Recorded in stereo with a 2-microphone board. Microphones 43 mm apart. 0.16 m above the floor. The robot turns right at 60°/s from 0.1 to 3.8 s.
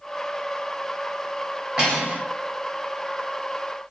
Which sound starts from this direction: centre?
Cutlery clinking, at 1.8 s.